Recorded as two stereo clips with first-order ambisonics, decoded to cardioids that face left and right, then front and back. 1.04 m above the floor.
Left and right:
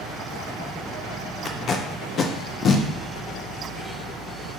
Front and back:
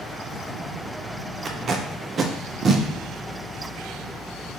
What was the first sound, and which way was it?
Tape being pulled, 130° left.